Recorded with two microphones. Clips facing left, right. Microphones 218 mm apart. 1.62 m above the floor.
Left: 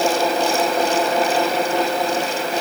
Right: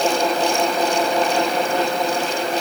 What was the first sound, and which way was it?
Only background noise.